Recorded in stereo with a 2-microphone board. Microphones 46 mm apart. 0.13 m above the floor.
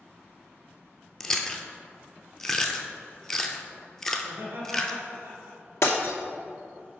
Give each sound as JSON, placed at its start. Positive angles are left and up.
{"t": 1.2, "sound": "chewing", "side_deg": 10, "distance_m": 0.6}
{"t": 4.2, "sound": "laughter", "side_deg": -55, "distance_m": 2.0}
{"t": 5.8, "sound": "breaking glass", "side_deg": 70, "distance_m": 1.0}